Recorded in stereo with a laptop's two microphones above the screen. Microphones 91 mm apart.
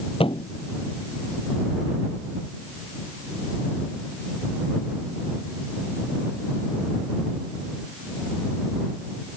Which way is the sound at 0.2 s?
85° left.